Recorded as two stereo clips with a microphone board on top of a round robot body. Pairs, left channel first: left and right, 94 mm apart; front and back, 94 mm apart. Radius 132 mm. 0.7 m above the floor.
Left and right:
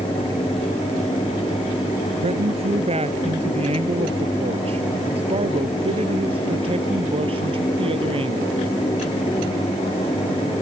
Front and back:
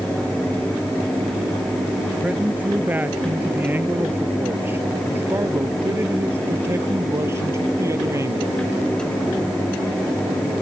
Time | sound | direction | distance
2.2 | a man speaking | 105° right | ?